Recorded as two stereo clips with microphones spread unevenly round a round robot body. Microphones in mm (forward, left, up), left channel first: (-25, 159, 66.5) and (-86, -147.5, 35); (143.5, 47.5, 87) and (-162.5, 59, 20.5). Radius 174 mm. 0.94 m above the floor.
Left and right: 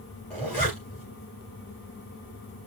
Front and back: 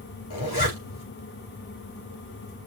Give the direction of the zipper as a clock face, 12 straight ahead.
12 o'clock.